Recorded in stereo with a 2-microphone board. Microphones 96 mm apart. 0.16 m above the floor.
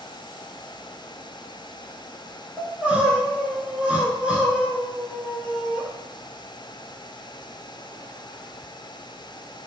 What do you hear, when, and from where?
2.6 s crying: 10° right (ahead or behind), 1.0 m